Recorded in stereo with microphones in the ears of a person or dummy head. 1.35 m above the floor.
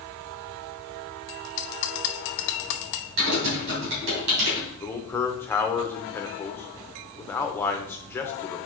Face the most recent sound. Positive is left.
turn(degrees=10)  # may be behind; listen again after turning